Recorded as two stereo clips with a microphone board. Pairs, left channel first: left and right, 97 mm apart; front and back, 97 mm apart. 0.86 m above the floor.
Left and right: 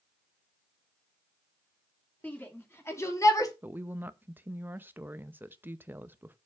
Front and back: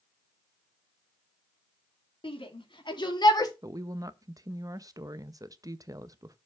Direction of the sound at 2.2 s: 20° left.